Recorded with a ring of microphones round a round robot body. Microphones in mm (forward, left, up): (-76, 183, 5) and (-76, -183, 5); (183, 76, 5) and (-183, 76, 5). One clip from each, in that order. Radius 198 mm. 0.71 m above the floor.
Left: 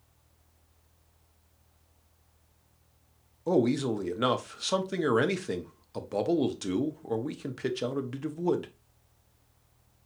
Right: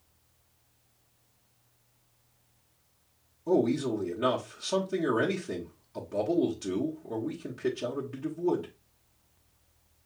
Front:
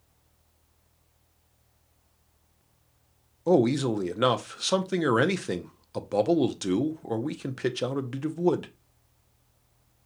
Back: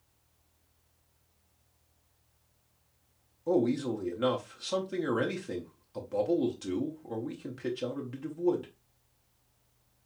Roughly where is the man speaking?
Ahead left.